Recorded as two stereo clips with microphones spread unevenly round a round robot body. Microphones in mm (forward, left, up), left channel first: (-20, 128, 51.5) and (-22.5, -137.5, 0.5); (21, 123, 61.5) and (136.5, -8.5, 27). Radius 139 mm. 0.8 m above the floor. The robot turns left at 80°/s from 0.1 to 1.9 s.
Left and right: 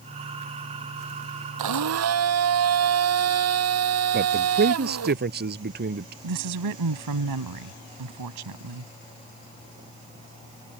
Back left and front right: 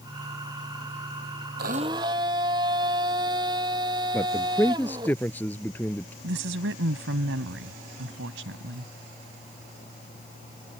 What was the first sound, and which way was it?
A blender, 100° right.